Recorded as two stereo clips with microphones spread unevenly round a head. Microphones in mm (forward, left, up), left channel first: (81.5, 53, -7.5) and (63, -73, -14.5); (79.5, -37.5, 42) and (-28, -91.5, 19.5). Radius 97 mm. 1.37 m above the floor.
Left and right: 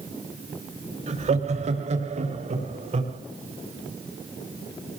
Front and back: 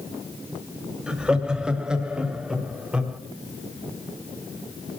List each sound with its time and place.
1.1 s laughter: 70° right, 3 m